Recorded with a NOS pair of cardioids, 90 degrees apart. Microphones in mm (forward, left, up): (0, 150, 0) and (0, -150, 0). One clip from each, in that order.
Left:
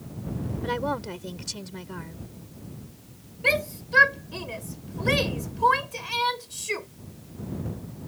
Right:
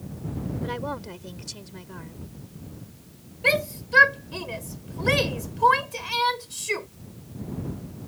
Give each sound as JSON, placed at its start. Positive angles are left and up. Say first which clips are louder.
{"t": 0.6, "sound": "a woman speaking", "louder": "left 5 dB", "azimuth_deg": 30}
{"t": 3.4, "sound": "a shout", "louder": "right 1 dB", "azimuth_deg": -15}